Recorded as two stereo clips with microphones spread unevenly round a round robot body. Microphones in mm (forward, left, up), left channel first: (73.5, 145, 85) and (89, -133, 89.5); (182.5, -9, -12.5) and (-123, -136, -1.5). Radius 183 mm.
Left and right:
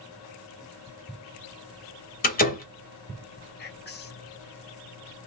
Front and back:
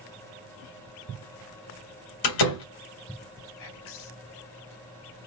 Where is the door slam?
40° left, 1.6 m.